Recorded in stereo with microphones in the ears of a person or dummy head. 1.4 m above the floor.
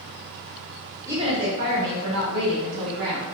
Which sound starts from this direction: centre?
A woman speaking, at 1.1 s.